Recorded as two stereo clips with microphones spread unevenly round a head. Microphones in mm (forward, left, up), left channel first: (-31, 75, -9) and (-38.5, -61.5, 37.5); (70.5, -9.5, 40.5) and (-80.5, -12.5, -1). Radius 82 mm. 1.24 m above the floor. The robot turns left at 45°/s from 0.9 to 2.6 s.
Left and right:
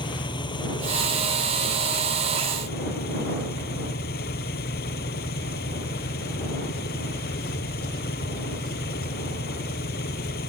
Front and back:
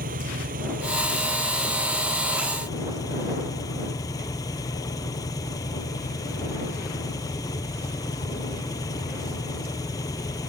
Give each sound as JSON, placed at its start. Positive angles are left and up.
{"t": 0.0, "sound": "an engine running", "azimuth_deg": 145}